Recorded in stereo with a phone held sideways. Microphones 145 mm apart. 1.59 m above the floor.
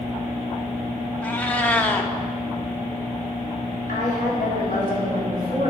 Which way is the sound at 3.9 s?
85° left.